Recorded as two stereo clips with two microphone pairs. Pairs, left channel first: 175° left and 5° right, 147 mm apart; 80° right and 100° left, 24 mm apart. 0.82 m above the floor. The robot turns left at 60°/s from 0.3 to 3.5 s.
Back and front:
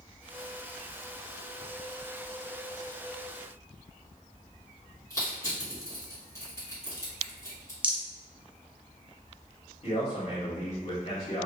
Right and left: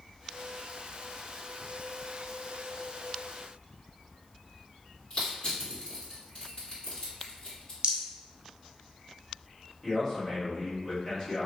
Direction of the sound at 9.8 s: 145° right.